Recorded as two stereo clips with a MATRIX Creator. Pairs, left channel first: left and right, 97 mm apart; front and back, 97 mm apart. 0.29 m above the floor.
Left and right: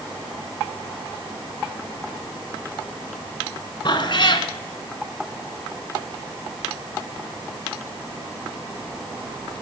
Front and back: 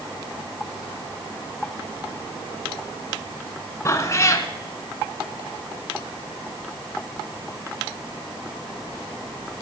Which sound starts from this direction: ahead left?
A cat meowing, at 3.9 s.